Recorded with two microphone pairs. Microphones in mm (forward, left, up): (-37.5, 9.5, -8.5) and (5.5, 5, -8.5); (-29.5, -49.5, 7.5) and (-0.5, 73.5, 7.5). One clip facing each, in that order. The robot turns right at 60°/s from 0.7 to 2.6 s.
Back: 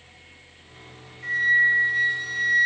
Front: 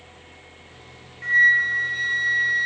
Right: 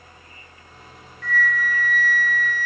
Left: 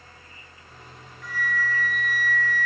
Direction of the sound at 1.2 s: 5° right.